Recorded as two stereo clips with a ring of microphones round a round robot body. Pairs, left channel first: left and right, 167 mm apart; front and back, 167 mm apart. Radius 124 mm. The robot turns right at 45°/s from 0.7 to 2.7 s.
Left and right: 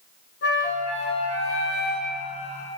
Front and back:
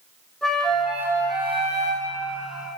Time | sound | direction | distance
0.4 | a flute | 85° left | 2.5 m